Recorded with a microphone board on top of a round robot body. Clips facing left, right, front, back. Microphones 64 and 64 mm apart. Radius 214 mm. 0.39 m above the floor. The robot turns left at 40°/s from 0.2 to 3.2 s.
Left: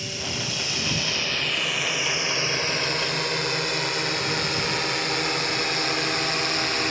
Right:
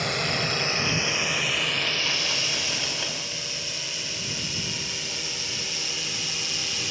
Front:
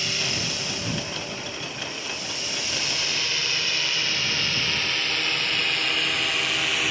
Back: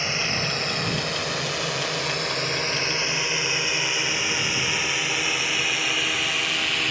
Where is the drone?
120° right; by 6.9 s 85° left.